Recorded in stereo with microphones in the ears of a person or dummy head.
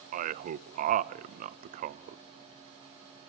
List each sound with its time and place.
0.1 s a man speaking: 50° right (ahead or behind), 0.6 m